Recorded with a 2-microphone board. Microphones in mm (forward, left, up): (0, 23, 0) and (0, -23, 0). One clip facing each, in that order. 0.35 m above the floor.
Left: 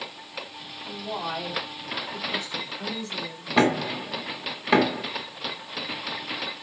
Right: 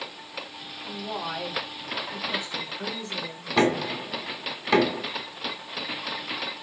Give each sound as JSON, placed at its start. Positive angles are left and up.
{"t": 0.9, "sound": "a woman speaking", "side_deg": 10, "distance_m": 1.6}
{"t": 3.6, "sound": "knocking", "side_deg": 15, "distance_m": 1.0}